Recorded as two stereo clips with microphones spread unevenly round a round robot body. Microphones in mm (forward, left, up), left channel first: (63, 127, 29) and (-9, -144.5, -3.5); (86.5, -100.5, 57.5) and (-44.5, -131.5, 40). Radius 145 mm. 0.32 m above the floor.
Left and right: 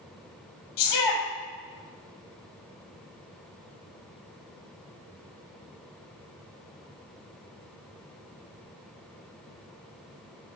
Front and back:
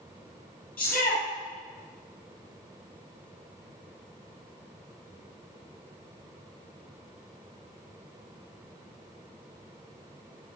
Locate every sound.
0.8 s a shout: 100° left, 7.5 m